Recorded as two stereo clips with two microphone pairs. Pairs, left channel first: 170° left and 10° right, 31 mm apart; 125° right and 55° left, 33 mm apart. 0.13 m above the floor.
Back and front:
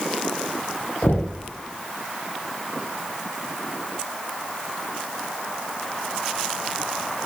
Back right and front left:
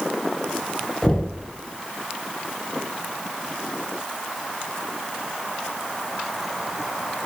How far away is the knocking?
About 4 m.